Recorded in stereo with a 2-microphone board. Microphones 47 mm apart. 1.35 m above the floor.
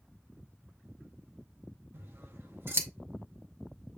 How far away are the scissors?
About 0.7 m.